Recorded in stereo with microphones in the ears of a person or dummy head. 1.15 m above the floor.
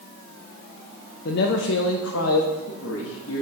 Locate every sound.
1.2 s a man speaking: 55° left (ahead or behind), 0.5 m; by 3.4 s 75° left (ahead or behind), 1.5 m